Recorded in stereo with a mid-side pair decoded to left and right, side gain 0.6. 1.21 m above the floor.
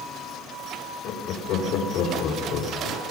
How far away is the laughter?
About 3.5 m.